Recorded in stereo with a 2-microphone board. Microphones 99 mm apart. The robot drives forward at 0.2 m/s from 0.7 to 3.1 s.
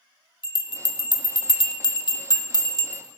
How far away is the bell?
About 0.7 m.